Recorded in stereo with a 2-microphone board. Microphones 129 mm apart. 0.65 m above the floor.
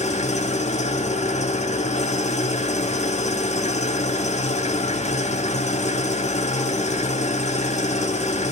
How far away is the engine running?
About 0.9 m.